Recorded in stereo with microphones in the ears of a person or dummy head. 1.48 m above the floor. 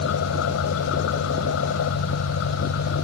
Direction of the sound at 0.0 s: 80° left.